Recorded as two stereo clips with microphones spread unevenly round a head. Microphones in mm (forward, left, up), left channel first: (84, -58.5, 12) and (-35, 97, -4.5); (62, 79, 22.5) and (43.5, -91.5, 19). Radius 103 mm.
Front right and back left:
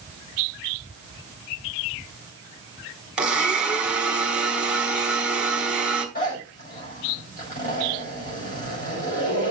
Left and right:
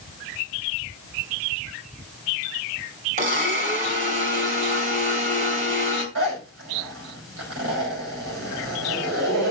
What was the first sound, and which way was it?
A blender, 145° right.